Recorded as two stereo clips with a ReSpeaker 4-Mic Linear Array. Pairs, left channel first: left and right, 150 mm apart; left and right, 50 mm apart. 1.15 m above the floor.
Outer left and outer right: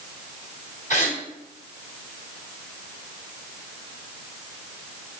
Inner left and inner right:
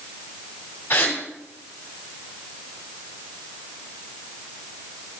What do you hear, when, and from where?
0.9 s a gasp: 55° left (ahead or behind), 1.6 m